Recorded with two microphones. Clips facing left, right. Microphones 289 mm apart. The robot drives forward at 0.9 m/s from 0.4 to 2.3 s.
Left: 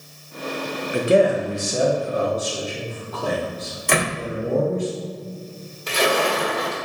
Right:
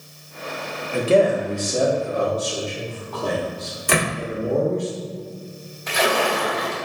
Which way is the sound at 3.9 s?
5° right (ahead or behind).